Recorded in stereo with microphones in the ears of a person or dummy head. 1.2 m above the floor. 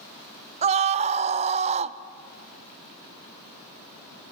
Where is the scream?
30° right (ahead or behind), 0.7 m.